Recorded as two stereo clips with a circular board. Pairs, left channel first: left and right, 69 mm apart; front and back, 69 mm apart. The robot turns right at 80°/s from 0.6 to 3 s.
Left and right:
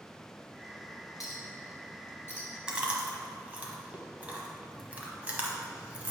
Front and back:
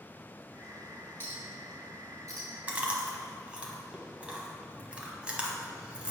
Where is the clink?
55° left, 1.9 m; by 2.5 s 160° left, 1.9 m.